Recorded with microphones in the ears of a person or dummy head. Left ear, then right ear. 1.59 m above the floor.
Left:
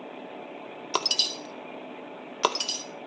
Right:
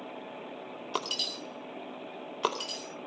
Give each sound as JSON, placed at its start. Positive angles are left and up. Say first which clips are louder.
{"t": 0.9, "sound": "breaking glass", "louder": "left 7 dB", "side_deg": 30, "distance_m": 2.0}